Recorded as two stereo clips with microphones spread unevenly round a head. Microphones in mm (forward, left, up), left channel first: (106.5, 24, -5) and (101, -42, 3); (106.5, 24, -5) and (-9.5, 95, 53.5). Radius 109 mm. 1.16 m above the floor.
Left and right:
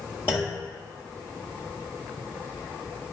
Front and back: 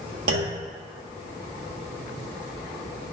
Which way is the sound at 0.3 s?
165° left.